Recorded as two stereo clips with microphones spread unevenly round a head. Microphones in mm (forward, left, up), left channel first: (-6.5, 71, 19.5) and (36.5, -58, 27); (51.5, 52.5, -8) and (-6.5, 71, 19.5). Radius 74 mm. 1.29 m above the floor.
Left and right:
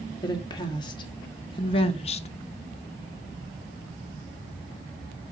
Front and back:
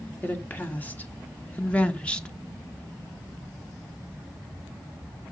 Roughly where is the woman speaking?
Ahead left.